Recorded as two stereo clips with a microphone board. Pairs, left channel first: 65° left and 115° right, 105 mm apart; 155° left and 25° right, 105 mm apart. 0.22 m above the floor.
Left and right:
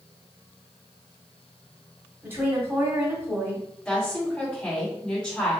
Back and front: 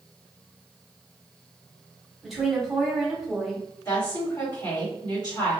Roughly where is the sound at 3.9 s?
Behind left.